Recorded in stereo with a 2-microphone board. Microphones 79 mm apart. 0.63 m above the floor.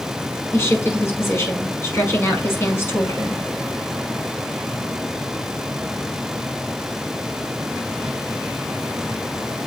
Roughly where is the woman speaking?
Left.